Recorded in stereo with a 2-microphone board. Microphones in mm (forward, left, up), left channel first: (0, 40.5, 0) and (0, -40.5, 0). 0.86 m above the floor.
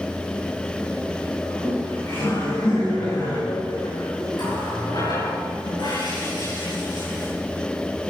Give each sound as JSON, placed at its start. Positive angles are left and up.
{"t": 1.4, "sound": "laughter", "side_deg": 45, "distance_m": 4.5}
{"t": 4.3, "sound": "a running tap", "side_deg": 65, "distance_m": 8.0}